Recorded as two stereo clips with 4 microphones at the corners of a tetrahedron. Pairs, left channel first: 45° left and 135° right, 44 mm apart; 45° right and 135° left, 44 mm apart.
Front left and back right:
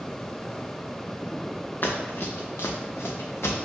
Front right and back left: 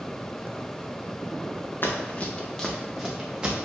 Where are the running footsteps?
Straight ahead, 1.0 m; by 3.6 s 65° left, 1.7 m.